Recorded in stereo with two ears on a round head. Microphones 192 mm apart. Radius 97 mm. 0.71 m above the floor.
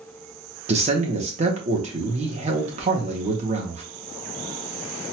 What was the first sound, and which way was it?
A man speaking, 30° right (ahead or behind).